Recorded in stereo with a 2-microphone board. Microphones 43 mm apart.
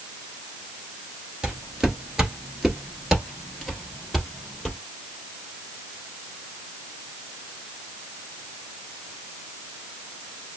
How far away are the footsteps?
About 1.4 m.